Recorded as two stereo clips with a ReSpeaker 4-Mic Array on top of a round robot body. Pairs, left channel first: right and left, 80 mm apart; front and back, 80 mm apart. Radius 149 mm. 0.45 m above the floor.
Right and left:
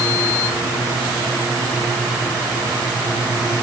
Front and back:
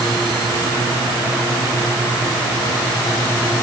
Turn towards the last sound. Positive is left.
No sound to turn to.